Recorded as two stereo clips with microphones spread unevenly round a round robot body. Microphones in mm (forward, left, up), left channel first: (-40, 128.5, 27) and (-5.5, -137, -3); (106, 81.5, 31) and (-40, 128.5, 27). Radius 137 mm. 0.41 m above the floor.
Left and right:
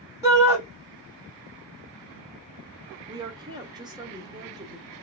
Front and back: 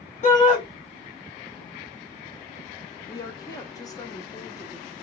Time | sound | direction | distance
0.2 | a shout | 15° right | 1.9 m
3.1 | a woman speaking | 50° right | 0.8 m